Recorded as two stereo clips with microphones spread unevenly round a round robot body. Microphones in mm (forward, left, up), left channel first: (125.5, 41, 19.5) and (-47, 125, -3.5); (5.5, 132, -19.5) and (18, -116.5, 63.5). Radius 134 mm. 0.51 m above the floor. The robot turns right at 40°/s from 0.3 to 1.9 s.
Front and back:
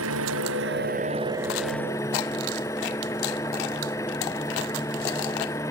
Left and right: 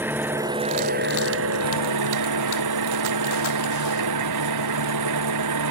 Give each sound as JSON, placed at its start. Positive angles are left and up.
{"t": 0.0, "sound": "an engine running", "azimuth_deg": -170}